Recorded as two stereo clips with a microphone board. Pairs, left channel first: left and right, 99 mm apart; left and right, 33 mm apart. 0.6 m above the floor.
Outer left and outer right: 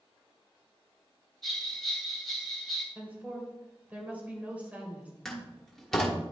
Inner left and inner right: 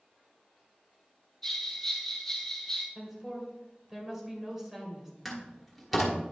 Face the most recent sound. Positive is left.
turn(degrees=5)  # may be behind; listen again after turning